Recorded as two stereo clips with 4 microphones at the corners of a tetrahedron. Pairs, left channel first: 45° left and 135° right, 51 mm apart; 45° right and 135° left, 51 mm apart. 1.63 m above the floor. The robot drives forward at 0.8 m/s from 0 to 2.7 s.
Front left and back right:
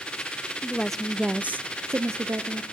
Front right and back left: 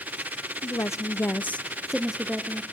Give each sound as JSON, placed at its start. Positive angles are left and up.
{"t": 0.6, "sound": "a woman speaking", "azimuth_deg": -25, "distance_m": 0.8}